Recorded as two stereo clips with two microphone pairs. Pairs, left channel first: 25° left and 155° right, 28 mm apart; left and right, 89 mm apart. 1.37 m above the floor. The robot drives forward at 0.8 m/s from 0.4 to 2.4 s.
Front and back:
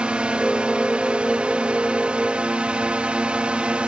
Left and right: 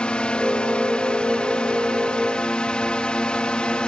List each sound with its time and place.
0.0 s a drone: 165° left